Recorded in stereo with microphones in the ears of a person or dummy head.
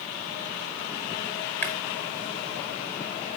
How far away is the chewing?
About 1.0 m.